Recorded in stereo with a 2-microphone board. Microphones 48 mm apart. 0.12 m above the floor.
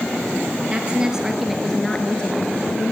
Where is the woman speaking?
20° right (ahead or behind), 2 m; by 2.9 s 45° left (ahead or behind), 1.9 m.